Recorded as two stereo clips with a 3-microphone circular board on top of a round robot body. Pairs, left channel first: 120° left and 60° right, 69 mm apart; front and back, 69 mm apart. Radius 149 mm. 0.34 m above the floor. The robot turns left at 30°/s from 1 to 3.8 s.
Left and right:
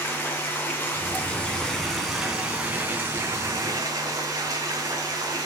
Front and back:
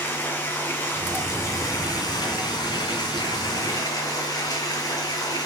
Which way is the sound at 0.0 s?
60° left.